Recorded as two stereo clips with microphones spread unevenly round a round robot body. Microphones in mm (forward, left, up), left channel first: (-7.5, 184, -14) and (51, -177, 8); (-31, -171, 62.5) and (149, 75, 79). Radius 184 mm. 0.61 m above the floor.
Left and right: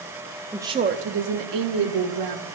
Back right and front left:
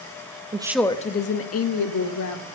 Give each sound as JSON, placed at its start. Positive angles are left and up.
{"t": 0.5, "sound": "a woman speaking", "azimuth_deg": 15, "distance_m": 0.6}